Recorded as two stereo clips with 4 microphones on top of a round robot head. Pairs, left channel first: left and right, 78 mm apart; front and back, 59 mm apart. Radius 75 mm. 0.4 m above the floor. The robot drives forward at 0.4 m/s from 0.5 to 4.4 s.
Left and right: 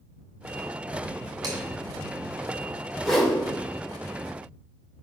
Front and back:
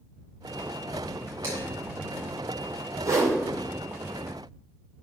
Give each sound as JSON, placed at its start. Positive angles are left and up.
{"t": 1.4, "sound": "dishes clattering", "azimuth_deg": -125, "distance_m": 3.0}
{"t": 3.0, "sound": "a whoosh", "azimuth_deg": 180, "distance_m": 2.0}